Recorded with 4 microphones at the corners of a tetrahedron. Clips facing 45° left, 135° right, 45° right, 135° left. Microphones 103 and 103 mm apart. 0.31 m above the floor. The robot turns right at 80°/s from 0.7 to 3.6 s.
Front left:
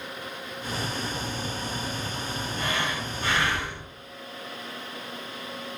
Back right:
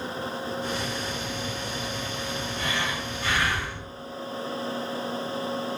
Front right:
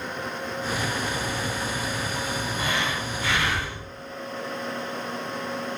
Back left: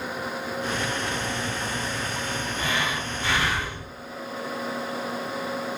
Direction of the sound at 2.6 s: 30° left.